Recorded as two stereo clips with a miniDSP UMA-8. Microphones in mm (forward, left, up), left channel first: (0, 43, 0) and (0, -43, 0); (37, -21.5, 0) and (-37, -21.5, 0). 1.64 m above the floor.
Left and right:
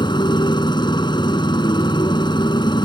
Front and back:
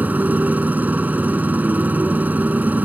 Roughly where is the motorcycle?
Behind left.